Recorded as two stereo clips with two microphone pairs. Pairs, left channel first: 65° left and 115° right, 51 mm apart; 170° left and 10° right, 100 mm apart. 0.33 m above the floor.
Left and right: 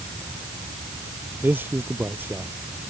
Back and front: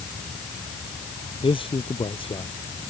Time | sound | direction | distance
1.4 | a man speaking | 160° right | ?